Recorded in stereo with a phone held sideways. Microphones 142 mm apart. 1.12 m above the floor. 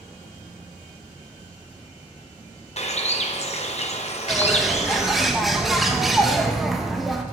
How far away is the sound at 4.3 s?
About 1.1 m.